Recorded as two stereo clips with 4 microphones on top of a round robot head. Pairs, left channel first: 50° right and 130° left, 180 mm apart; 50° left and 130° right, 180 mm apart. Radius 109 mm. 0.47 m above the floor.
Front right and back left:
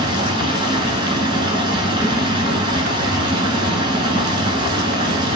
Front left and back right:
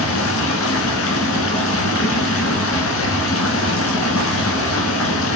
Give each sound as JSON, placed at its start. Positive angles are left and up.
{"t": 0.0, "sound": "running water", "azimuth_deg": 60, "distance_m": 0.9}